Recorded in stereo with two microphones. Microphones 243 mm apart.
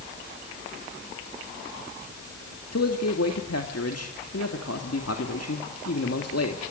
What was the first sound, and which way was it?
A man speaking, 70° left (ahead or behind).